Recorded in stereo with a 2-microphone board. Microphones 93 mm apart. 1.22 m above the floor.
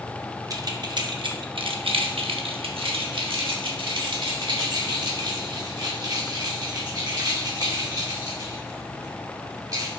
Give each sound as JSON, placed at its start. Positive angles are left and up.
{"t": 0.5, "sound": "keys jangling", "side_deg": -40, "distance_m": 1.1}